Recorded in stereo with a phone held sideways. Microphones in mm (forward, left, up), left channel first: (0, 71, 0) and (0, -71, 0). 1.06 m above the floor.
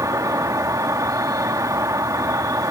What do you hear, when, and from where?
0.0 s an insect: 25° right (ahead or behind)